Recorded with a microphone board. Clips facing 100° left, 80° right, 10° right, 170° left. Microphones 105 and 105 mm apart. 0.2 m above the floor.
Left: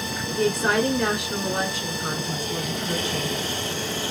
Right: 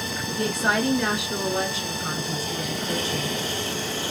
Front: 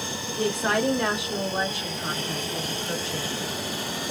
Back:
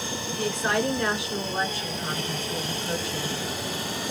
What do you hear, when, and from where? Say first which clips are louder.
0.4 s a woman speaking: left 3 dB, front 2 dB; 45° left, 2 m; by 3.3 s 115° left, 1.7 m